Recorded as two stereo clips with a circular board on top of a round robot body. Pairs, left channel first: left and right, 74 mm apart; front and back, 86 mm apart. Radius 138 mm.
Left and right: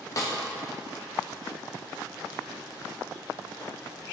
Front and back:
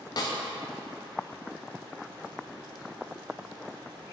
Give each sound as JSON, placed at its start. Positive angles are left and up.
{"t": 0.2, "sound": "a snare drum", "azimuth_deg": 45, "distance_m": 0.8}